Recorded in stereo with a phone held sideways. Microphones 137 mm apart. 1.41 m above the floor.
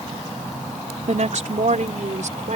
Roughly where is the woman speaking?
Right.